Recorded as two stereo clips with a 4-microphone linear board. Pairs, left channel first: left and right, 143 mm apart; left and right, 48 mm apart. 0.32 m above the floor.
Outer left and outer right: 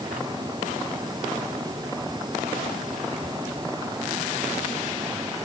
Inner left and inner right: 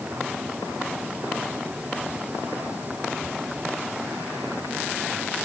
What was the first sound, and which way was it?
Only background noise.